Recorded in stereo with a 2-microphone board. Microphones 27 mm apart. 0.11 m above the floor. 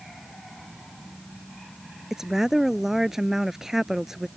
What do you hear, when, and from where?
2.1 s a woman speaking: 15° right (ahead or behind)